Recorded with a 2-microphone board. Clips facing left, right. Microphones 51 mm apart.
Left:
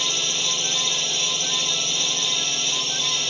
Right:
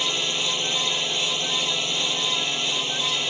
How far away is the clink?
No clink in this recording.